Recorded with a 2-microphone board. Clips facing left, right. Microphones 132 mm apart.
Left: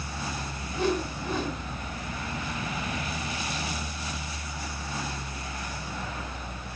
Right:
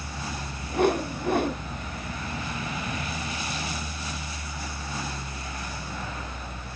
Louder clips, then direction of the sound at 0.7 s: Right 5 dB; 60° right (ahead or behind).